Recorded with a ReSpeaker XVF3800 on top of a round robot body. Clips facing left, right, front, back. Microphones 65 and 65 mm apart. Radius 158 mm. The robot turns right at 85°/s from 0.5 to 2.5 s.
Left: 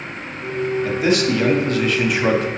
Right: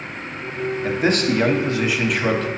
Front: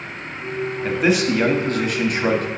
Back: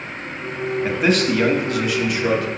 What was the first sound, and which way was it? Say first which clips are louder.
A man speaking: even, even; 105° right.